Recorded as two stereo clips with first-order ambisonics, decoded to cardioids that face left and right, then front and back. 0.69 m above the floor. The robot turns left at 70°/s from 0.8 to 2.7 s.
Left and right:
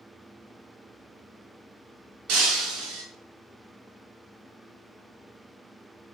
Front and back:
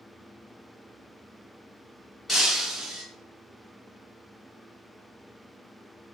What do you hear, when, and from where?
2.3 s breaking glass: 80° right, 0.7 m; by 3.0 s 105° right, 0.7 m